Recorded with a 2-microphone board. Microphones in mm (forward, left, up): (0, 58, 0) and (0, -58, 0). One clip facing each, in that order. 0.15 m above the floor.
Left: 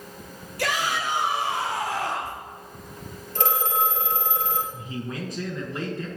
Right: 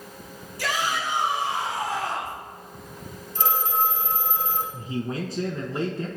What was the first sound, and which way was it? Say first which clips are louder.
A shout: left 1 dB; 65° left (ahead or behind).